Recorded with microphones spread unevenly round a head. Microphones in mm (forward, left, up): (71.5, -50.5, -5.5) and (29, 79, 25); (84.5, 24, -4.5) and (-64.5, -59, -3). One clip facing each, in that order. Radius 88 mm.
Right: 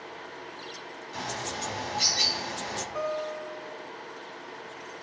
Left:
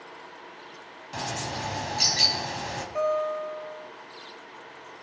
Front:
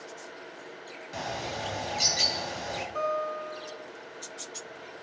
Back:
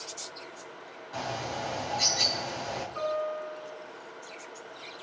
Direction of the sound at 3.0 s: 45° left.